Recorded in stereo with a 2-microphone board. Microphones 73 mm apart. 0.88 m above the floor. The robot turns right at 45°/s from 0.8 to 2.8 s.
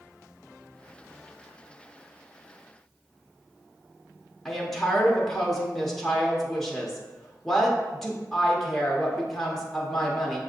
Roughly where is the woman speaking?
Centre.